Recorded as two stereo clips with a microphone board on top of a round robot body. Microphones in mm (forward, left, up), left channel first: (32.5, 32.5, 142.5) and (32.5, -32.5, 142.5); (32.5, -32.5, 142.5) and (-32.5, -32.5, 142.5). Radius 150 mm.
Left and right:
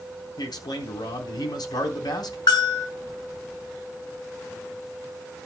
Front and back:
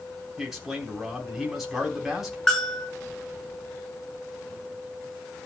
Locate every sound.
0.4 s a man speaking: 95° left, 4 m
2.5 s a bell: 85° left, 6.5 m